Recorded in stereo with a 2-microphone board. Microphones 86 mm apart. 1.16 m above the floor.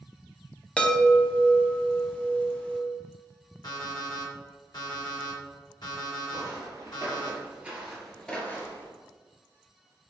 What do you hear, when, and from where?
0.8 s a chime: 10° left (ahead or behind), 0.7 m
3.6 s an alarm clock: 55° left (ahead or behind), 1.6 m
6.3 s footsteps: 45° right (ahead or behind), 1.8 m; by 8.9 s 30° left (ahead or behind), 1.3 m